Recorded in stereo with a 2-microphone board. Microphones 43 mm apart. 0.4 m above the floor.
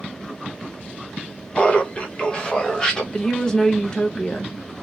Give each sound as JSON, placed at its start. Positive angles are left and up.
{"t": 1.6, "sound": "laughter", "side_deg": 30, "distance_m": 1.0}
{"t": 3.1, "sound": "a woman speaking", "side_deg": 15, "distance_m": 1.0}